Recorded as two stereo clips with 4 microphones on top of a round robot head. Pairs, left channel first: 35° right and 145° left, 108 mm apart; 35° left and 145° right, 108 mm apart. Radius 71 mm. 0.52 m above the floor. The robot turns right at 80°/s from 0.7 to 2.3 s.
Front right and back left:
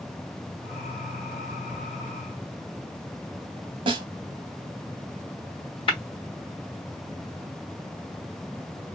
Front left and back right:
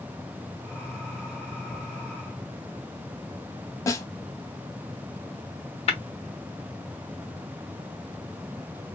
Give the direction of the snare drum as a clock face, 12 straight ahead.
9 o'clock.